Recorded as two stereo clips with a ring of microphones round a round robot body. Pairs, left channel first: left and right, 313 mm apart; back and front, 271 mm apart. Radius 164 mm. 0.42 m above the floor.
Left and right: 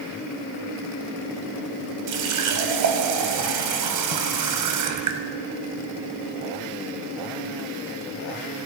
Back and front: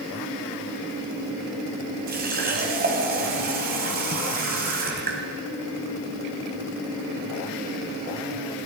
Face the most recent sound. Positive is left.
turn(degrees=-60)